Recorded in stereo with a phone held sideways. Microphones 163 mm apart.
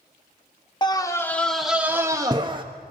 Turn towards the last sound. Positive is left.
turn(degrees=-30)  # may be behind; listen again after turning